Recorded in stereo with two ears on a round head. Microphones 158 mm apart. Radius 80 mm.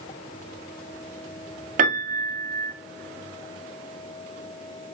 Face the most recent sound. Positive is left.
turn(degrees=-45)  # may be behind; listen again after turning